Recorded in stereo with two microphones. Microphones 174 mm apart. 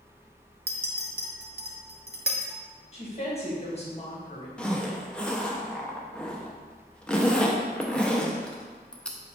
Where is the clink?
70° right (ahead or behind), 0.6 m.